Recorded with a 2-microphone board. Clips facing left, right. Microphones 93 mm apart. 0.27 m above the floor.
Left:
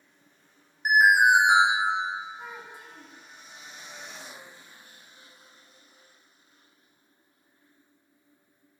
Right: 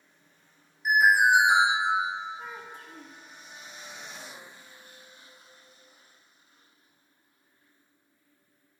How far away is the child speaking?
About 1.5 m.